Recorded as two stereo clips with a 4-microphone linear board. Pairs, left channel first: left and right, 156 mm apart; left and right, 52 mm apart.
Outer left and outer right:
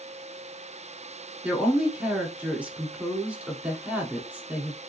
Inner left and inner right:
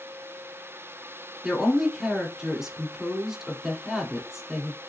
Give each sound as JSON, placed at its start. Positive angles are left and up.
{"t": 1.4, "sound": "a woman speaking", "side_deg": -10, "distance_m": 1.1}